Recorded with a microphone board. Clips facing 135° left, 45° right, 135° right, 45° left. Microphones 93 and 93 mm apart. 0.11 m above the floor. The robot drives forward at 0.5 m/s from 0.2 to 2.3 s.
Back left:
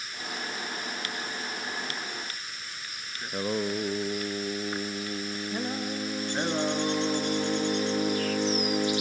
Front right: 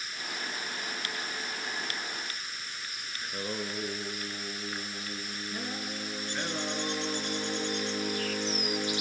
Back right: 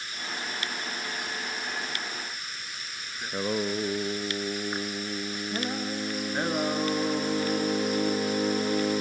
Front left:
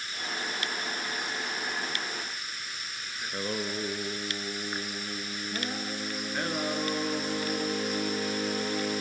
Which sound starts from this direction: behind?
Singing, at 3.2 s.